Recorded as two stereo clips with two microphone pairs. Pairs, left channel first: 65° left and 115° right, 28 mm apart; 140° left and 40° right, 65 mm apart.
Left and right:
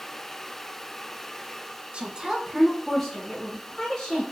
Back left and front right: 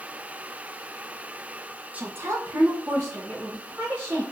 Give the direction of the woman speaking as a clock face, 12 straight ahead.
3 o'clock.